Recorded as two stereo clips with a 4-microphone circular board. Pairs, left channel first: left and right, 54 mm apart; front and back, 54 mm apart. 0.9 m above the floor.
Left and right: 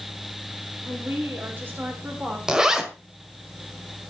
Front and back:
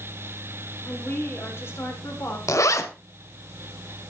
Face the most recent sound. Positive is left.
turn(degrees=-10)